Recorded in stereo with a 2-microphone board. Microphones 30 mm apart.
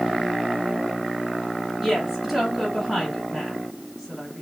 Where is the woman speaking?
5° right (ahead or behind), 3 m.